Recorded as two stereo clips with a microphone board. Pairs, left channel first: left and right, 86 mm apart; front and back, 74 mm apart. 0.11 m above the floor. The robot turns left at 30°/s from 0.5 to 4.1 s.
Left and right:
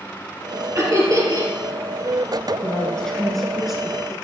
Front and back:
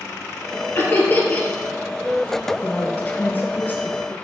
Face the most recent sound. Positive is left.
turn(degrees=-15)